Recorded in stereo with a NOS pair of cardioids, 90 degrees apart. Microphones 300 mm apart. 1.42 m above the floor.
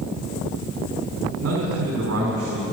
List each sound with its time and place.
1.4 s a man speaking: 55° right, 5 m